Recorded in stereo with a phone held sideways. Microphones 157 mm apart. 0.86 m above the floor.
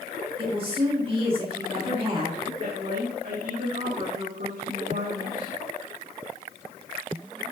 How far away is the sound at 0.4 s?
About 1.5 m.